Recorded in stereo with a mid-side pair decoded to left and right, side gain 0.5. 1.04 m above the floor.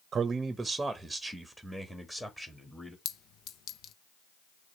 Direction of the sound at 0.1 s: 45° right.